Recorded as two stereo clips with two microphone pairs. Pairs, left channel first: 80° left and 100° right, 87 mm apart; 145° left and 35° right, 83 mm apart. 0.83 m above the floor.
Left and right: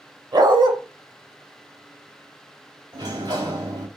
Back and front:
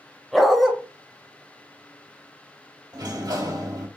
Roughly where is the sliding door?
Ahead right.